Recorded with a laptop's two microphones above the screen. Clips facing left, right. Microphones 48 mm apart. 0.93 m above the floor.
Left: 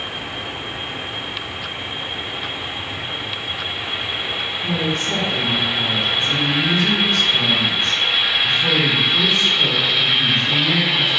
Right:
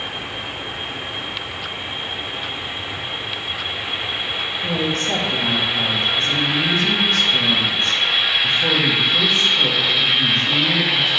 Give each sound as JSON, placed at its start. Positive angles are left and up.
{"t": 4.6, "sound": "a woman speaking", "side_deg": -55, "distance_m": 1.2}